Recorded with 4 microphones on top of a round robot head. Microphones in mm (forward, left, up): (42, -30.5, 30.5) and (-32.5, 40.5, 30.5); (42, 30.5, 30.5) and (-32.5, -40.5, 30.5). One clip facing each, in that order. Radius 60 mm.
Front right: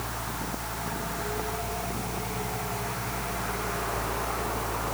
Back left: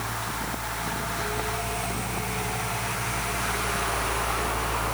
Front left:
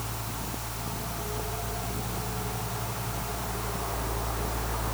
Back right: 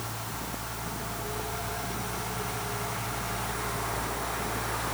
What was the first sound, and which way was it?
Only background noise.